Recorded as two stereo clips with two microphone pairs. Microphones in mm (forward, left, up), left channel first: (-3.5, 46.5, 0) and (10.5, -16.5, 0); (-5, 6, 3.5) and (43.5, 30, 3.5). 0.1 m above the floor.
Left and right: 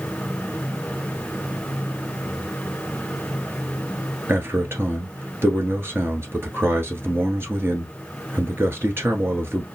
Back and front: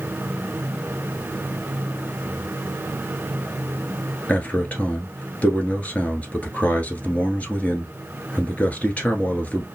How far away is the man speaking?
About 1.5 m.